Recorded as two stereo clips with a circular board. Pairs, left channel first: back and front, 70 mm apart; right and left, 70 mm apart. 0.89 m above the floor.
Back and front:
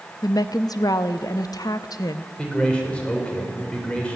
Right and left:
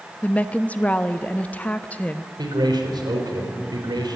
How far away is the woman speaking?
About 0.8 m.